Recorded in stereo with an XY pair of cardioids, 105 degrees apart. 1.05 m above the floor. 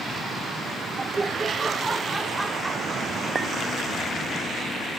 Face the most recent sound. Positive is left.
turn(degrees=-40)